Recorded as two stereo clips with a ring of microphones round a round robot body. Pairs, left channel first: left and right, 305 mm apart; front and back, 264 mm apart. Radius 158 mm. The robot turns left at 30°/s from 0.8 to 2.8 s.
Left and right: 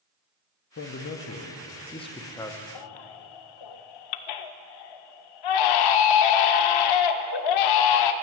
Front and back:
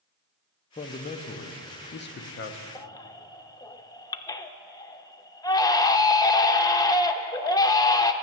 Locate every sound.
0.8 s a man speaking: 60° left, 0.7 m; by 2.6 s 5° left, 0.7 m
2.8 s a baby crying: 80° left, 0.5 m; by 8.1 s 75° left, 0.5 m